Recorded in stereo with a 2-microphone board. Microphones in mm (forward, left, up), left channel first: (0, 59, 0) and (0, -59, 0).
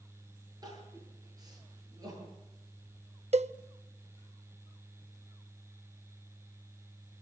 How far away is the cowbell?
About 0.5 m.